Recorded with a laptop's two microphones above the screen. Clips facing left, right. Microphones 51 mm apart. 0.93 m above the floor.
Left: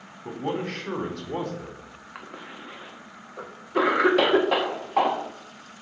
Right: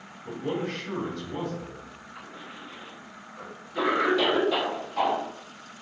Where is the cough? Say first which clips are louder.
Left 3 dB; 65° left (ahead or behind), 1.4 m.